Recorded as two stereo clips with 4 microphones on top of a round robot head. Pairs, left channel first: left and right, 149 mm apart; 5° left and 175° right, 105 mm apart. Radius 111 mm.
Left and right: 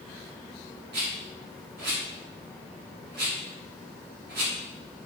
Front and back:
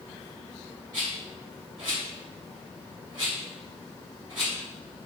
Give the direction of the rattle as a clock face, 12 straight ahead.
4 o'clock.